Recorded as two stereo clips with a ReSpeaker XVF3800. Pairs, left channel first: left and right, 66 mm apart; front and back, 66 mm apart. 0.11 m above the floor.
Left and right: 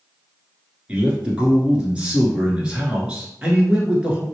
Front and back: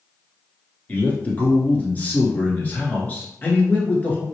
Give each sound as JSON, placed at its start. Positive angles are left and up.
{"t": 0.9, "sound": "a man speaking", "azimuth_deg": -35, "distance_m": 1.2}